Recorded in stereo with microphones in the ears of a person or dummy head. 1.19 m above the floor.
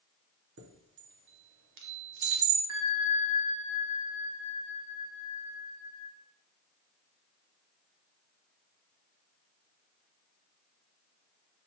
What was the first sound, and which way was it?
A chime, 55° right (ahead or behind).